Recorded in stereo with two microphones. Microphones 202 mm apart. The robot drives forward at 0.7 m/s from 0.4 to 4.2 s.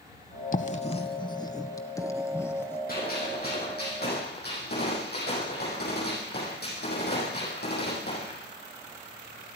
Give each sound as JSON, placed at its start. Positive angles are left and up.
{"t": 0.5, "sound": "writing", "side_deg": 40, "distance_m": 0.6}
{"t": 2.9, "sound": "a gunshot", "side_deg": 50, "distance_m": 8.0}